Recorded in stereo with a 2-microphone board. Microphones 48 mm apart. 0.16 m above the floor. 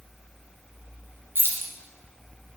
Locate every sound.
1.4 s keys jangling: 50° right (ahead or behind), 1.6 m